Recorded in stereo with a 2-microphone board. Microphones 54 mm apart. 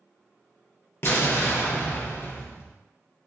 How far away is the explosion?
About 0.6 m.